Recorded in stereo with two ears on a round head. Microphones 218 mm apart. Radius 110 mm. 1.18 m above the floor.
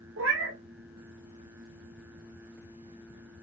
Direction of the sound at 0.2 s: 55° right (ahead or behind).